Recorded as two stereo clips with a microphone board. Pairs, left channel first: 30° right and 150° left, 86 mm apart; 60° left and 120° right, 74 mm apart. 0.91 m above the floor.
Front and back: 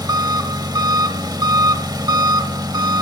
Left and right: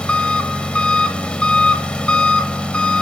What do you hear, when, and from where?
0.0 s an engine running: 135° left, 1.1 m